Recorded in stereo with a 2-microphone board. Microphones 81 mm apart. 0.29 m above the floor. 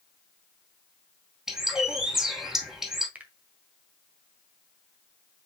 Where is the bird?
5° right (ahead or behind), 2 m.